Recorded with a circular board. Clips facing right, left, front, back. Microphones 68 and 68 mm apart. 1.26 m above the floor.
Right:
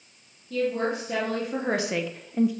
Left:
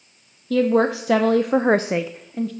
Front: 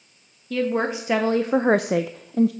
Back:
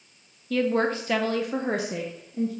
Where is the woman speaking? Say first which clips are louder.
Left 8 dB, even; 85° left, 0.9 m; by 2.5 s 10° right, 0.6 m.